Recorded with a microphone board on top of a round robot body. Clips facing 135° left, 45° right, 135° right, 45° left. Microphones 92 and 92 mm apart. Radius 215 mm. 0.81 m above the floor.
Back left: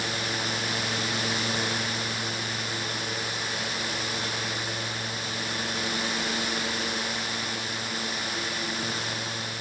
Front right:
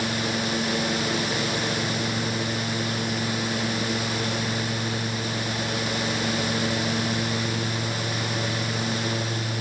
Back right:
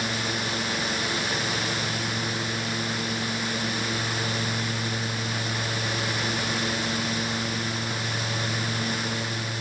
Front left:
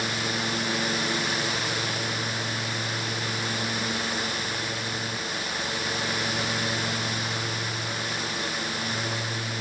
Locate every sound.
Only background noise.